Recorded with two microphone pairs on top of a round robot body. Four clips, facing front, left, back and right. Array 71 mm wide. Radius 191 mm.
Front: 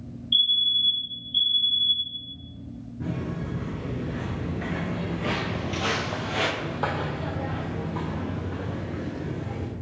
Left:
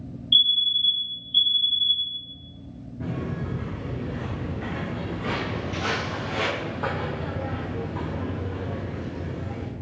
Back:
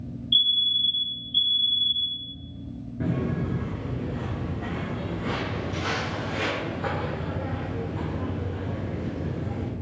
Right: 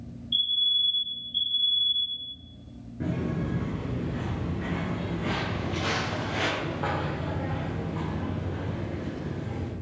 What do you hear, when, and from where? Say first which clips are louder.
0.3 s a fire alarm: left 5 dB, even; 95° left, 2 m
3.0 s footsteps: right 1 dB, back 4 dB; 150° right, 0.6 m; by 9.7 s 10° left, 3.5 m